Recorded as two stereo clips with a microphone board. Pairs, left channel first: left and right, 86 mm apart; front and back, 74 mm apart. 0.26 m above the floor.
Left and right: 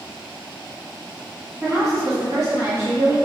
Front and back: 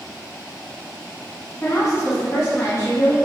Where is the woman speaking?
45° right, 2.5 m.